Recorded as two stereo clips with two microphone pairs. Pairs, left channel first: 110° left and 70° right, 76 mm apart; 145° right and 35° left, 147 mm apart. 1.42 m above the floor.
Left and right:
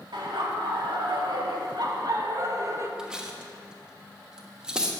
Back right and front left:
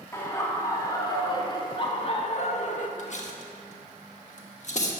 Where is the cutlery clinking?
145° right, 1.1 m.